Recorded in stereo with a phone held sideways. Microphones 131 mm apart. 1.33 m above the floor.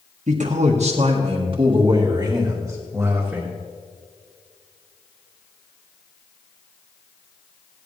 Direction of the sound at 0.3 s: 70° right (ahead or behind).